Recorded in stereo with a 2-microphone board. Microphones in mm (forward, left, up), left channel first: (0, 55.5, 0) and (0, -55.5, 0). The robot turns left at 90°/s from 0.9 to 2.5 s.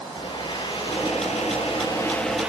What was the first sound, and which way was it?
A blender, 130° left.